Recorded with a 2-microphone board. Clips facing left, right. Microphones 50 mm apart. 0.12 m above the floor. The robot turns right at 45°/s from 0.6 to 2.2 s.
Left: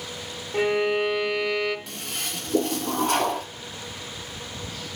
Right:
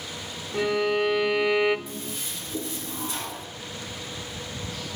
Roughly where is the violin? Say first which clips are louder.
Left 1 dB; behind left.